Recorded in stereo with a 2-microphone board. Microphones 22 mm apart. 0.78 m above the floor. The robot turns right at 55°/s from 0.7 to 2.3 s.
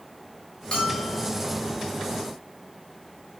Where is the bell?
35° left, 3.5 m; by 1.3 s 65° left, 3.5 m.